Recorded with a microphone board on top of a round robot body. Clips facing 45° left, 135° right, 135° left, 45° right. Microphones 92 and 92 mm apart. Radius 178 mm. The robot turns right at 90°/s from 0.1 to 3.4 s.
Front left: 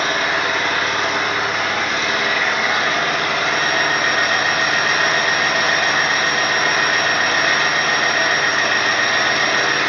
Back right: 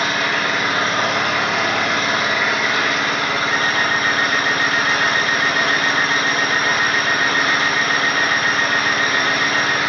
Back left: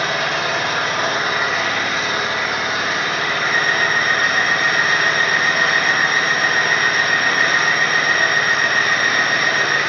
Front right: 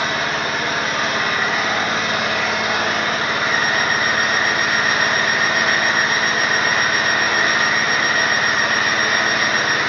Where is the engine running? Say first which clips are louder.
Front left 1 dB, back left 1 dB; 95° left, 1.4 m; by 9.9 s 30° left, 1.4 m.